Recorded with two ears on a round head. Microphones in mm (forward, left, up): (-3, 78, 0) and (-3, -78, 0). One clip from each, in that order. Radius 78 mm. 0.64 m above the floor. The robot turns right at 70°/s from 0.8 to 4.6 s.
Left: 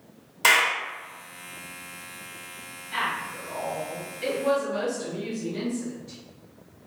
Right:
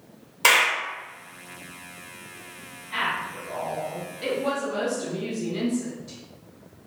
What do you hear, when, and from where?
0.4 s a clap: 5° left (ahead or behind), 1.2 m
2.9 s a woman speaking: 15° left (ahead or behind), 1.2 m; by 6.2 s 15° right (ahead or behind), 1.2 m